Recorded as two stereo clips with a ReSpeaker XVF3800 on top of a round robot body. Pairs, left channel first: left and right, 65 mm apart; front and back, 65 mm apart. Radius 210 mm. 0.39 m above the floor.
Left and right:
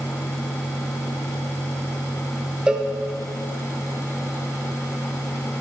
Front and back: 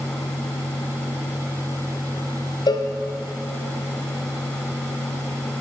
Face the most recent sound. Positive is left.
turn(degrees=-10)